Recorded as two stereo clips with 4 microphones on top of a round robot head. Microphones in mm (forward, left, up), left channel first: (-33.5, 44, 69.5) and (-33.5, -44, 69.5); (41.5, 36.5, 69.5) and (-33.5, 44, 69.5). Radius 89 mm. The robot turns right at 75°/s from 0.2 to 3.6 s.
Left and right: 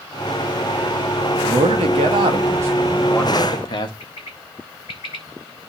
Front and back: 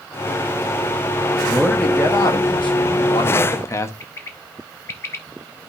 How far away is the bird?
About 0.9 m.